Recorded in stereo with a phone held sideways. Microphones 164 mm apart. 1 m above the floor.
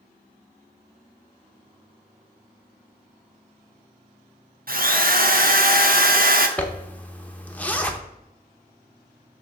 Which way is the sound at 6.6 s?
10° left (ahead or behind).